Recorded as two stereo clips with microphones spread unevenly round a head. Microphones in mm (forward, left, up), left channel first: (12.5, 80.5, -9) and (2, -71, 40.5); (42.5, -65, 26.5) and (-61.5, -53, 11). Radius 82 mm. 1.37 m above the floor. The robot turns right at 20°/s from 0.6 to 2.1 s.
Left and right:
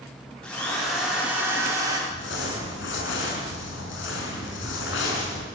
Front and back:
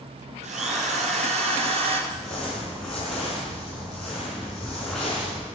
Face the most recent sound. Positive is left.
turn(degrees=80)